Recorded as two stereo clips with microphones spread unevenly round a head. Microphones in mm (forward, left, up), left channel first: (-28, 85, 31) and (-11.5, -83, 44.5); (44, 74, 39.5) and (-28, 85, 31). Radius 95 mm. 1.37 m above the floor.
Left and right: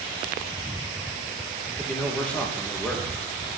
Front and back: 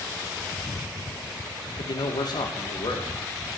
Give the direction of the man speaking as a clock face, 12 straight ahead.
12 o'clock.